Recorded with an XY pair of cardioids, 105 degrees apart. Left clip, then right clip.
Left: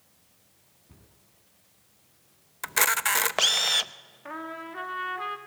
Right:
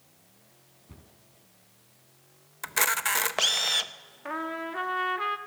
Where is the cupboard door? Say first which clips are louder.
Right 5 dB; 30° right, 4 m.